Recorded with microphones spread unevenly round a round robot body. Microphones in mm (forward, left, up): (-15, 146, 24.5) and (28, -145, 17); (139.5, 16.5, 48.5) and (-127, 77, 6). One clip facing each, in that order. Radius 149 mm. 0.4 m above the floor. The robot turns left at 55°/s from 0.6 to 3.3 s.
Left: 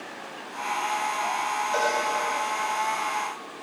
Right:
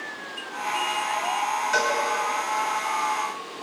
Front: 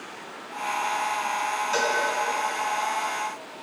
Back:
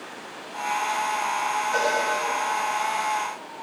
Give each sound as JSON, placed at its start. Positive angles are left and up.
{"t": 1.7, "sound": "a cowbell", "azimuth_deg": -40, "distance_m": 4.0}